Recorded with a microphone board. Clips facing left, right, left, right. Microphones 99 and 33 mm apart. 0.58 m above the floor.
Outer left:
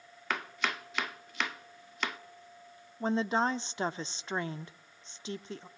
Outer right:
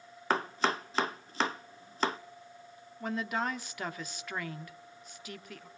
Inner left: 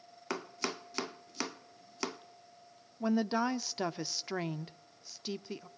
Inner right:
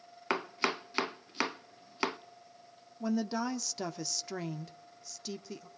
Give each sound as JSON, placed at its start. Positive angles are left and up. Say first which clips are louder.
{"t": 0.3, "sound": "chopping", "louder": "outer right 5 dB, inner right 6 dB", "side_deg": -35, "distance_m": 0.5}
{"t": 3.0, "sound": "a woman speaking", "louder": "outer left 5 dB, inner left 2 dB", "side_deg": 25, "distance_m": 0.8}